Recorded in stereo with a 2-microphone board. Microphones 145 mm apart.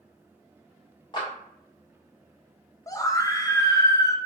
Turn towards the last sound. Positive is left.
turn(degrees=25)  # may be behind; listen again after turning